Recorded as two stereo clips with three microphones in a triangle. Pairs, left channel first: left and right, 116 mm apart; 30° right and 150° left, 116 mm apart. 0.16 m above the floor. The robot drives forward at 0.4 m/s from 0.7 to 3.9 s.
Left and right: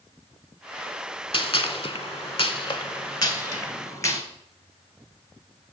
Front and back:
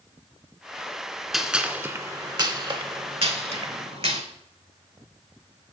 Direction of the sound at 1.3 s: 65° left.